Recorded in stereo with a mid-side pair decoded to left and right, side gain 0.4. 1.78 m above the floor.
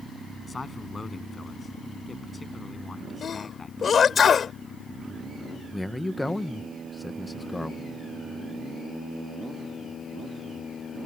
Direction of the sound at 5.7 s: 10° left.